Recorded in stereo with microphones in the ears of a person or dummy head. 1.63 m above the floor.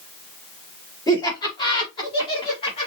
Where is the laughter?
20° left (ahead or behind), 1.8 m; by 2.9 s 25° left (ahead or behind), 3 m.